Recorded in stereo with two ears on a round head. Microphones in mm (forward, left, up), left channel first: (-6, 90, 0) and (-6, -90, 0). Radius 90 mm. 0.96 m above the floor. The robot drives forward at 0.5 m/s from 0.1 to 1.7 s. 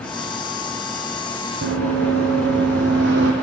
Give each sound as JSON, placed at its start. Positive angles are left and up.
{"t": 1.6, "sound": "running footsteps", "side_deg": -65, "distance_m": 3.0}